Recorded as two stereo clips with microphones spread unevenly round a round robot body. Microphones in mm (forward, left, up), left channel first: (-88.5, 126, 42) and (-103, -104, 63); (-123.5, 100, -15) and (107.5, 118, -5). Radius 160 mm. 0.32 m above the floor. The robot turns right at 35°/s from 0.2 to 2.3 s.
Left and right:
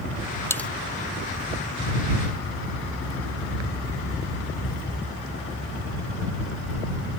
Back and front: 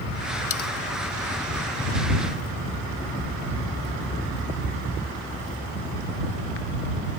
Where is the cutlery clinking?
165° left; by 0.7 s 175° left.